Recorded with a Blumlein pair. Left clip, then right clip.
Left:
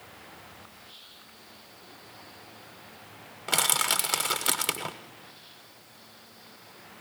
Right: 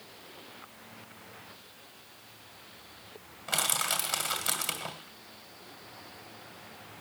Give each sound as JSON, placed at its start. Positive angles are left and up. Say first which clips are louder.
{"t": 3.5, "sound": "crushing", "louder": "left 4 dB", "azimuth_deg": 25, "distance_m": 1.1}